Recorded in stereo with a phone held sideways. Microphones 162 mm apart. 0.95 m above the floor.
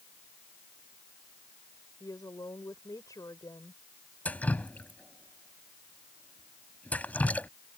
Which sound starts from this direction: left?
A woman speaking, at 2.0 s.